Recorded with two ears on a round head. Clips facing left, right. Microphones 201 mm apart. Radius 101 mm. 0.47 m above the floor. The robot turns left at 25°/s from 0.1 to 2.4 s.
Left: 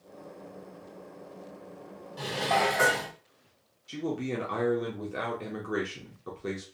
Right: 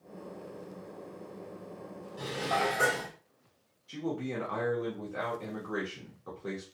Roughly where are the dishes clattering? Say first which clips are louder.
Left 4 dB; left.